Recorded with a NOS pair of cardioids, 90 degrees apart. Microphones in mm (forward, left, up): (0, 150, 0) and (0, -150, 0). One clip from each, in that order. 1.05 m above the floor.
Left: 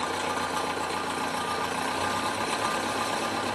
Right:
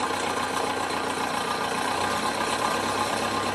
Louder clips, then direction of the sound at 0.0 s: Right 2 dB; 15° right.